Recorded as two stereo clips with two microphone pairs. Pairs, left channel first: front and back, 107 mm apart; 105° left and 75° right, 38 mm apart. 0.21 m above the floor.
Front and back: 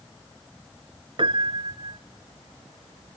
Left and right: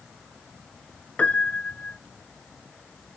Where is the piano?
155° left, 0.5 m.